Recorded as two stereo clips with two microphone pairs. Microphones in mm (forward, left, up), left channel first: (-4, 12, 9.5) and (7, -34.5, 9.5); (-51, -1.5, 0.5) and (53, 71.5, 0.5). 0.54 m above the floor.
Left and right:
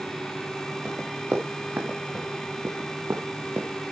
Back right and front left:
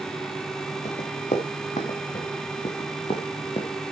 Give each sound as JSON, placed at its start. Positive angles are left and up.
{"t": 0.8, "sound": "running footsteps", "azimuth_deg": -130, "distance_m": 5.0}